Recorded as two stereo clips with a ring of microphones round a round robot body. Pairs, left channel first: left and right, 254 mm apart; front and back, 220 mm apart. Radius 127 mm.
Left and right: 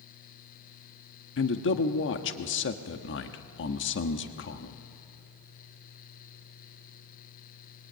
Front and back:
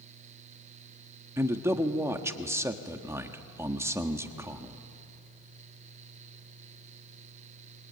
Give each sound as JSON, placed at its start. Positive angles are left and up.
{"t": 1.4, "sound": "a man speaking", "azimuth_deg": 105, "distance_m": 1.3}